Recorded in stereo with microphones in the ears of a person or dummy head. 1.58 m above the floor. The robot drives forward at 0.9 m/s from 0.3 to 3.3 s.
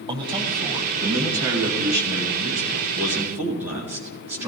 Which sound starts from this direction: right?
A man speaking, at 0.1 s.